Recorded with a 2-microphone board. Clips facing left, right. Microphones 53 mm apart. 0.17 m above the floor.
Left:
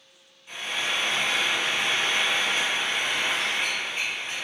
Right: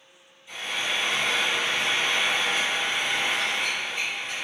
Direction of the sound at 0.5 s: 40° left (ahead or behind).